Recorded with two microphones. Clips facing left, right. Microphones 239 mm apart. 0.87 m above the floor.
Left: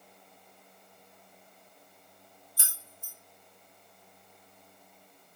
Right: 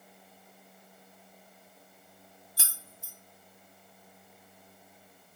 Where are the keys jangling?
75° right (ahead or behind), 0.5 m.